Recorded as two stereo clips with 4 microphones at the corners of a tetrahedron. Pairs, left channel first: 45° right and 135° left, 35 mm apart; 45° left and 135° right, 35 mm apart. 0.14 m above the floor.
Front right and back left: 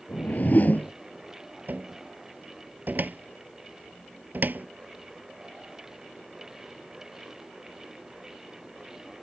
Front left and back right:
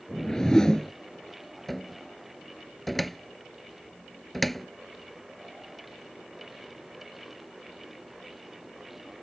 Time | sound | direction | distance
0.1 | a whoosh | 25° right | ?
1.7 | a cupboard door | 130° left | ?